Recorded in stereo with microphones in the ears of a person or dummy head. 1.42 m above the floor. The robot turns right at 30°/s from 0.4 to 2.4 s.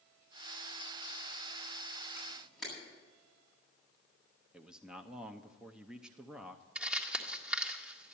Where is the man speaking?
5° right (ahead or behind), 0.6 m.